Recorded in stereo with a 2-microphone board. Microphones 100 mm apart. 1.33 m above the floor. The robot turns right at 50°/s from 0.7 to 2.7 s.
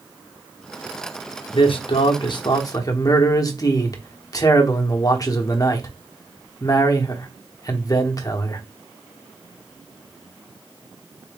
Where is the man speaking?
80° left, 0.9 m; by 8.6 s 140° left, 0.9 m.